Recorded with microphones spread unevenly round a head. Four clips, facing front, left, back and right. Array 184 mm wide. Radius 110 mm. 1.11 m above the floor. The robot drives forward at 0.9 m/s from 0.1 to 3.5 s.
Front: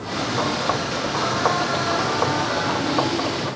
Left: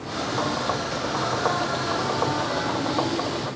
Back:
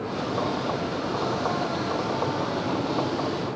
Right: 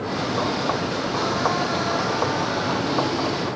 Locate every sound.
Only background noise.